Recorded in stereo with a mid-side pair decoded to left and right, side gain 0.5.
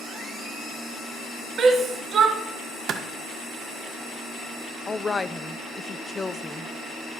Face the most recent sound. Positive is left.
turn(degrees=20)